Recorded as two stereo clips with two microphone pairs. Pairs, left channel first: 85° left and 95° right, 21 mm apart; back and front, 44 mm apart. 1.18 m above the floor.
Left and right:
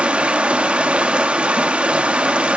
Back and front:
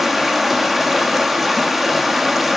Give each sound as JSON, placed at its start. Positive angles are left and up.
{"t": 0.0, "sound": "running water", "azimuth_deg": -90, "distance_m": 1.2}